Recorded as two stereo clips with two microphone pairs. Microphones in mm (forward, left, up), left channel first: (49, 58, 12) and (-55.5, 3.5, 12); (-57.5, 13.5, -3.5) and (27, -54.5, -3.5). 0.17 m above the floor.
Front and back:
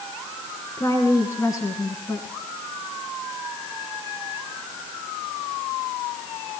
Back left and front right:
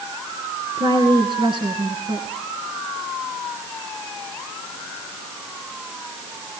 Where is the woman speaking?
30° right, 2 m.